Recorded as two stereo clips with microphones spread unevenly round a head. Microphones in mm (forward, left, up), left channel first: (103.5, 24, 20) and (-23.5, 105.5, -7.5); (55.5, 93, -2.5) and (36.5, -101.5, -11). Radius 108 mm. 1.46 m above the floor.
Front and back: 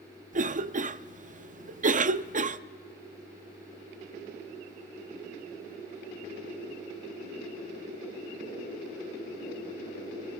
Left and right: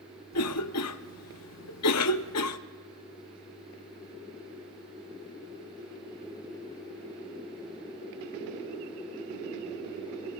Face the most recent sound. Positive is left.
turn(degrees=110)